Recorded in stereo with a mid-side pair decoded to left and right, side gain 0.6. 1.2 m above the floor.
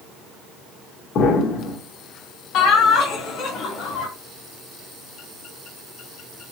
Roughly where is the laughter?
Ahead left.